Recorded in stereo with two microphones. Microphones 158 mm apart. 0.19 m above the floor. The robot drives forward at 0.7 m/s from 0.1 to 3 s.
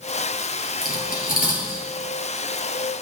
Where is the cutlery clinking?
65° left (ahead or behind), 2 m; by 1.9 s 55° left (ahead or behind), 2.5 m.